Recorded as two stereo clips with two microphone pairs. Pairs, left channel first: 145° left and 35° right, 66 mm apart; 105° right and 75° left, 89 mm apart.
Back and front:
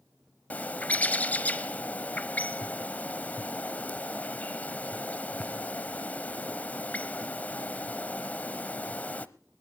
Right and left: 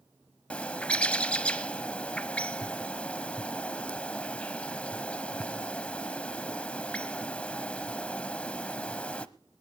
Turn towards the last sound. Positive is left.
turn(degrees=-175)